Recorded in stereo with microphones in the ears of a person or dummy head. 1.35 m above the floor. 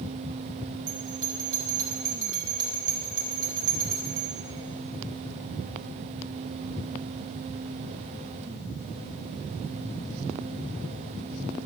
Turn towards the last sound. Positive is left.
turn(degrees=-75)  # may be behind; listen again after turning